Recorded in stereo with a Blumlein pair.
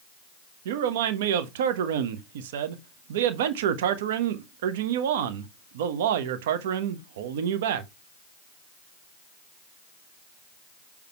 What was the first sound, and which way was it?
A man speaking, 55° right.